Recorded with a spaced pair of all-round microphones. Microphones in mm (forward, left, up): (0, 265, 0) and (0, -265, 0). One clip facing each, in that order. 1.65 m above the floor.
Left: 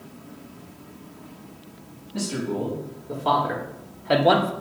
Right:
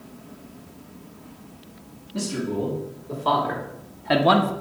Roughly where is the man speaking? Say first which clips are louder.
Right 1 dB; centre.